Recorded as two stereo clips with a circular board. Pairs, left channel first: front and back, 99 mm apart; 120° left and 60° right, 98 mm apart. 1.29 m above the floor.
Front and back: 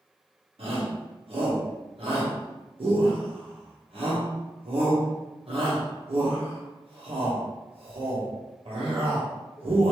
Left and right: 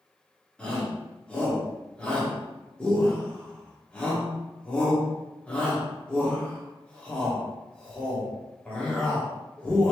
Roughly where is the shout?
Behind.